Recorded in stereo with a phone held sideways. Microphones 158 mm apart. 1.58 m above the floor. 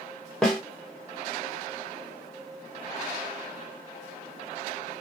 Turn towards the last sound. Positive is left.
turn(degrees=5)  # may be behind; listen again after turning